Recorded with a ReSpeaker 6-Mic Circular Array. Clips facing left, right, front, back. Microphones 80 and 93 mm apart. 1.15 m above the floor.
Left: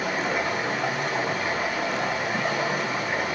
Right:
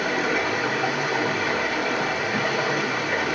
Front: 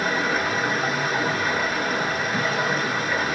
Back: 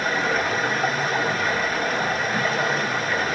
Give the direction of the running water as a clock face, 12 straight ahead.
3 o'clock.